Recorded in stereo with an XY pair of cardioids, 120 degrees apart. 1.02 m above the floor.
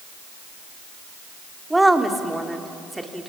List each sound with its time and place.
1.7 s a woman speaking: 10° right, 2.0 m